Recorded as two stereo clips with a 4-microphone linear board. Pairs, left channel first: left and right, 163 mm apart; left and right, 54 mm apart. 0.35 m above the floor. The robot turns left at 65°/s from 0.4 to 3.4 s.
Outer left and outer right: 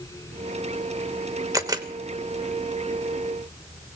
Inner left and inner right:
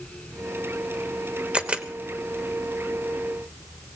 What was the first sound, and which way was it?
A camera shutter, 20° right (ahead or behind).